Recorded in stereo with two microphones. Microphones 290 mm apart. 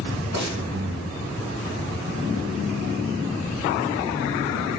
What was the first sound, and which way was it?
Breathing, 75° right (ahead or behind).